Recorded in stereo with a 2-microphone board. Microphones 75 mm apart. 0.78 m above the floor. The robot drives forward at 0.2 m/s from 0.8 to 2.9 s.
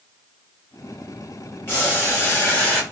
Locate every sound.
1.7 s boiling: 30° left (ahead or behind), 1.3 m; by 2.8 s 25° left (ahead or behind), 1.5 m